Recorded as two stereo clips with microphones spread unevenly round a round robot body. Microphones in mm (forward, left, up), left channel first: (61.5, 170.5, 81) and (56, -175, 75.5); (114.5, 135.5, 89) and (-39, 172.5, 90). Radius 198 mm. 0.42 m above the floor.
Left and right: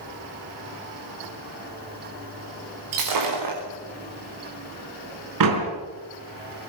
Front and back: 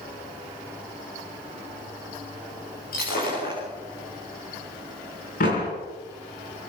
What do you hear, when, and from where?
2.9 s breaking glass: 60° right, 7 m
5.4 s a door slam: 60° right, 4.5 m